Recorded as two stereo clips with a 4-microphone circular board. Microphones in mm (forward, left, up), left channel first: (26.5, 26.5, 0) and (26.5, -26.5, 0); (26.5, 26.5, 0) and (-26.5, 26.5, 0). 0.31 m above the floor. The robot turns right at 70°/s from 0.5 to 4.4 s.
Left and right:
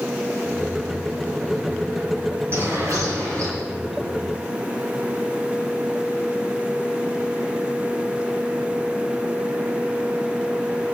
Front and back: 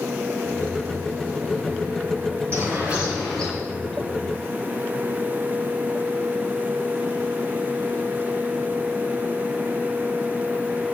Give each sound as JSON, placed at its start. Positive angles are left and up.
{"t": 2.5, "sound": "a bird", "azimuth_deg": -140, "distance_m": 5.0}